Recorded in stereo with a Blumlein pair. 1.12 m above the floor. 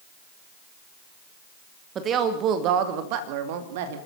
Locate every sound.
1.9 s a woman speaking: 25° right, 2.0 m; by 4.0 s 55° right, 2.5 m